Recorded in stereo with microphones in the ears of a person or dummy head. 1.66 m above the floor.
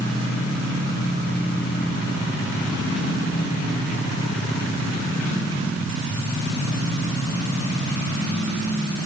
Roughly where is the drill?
I don't hear a drill.